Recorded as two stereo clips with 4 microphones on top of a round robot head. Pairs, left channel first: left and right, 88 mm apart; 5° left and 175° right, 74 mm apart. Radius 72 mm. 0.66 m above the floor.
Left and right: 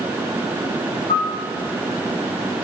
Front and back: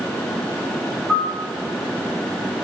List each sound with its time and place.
1.1 s a piano: 95° left, 5 m